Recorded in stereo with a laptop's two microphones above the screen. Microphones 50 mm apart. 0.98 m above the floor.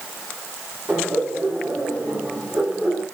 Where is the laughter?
55° right (ahead or behind), 4.5 m; by 3.0 s 45° right (ahead or behind), 4 m.